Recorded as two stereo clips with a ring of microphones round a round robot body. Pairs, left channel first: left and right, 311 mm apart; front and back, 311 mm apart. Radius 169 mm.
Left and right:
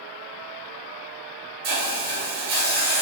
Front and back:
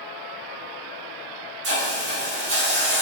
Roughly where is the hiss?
Behind right.